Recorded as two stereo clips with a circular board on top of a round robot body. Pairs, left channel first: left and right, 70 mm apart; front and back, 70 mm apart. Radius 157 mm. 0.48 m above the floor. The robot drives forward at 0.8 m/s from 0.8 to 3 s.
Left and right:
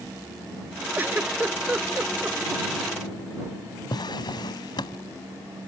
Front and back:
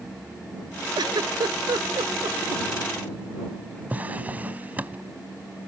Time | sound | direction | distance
1.0 | a giggle | 155° right | ?
3.9 | a drawer | 110° left | ?